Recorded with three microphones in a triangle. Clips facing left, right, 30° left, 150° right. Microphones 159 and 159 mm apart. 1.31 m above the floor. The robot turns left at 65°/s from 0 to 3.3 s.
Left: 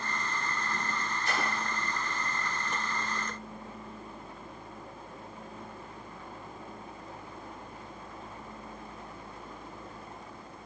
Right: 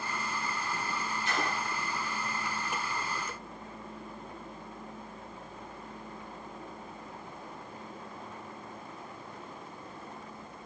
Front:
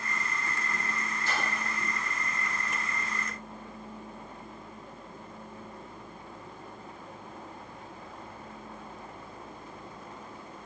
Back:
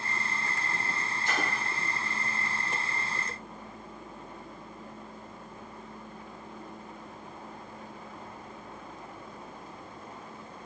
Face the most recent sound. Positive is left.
turn(degrees=5)